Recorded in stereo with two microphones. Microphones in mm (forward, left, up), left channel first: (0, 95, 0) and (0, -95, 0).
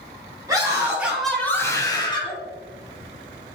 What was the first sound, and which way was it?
A scream, 20° right (ahead or behind).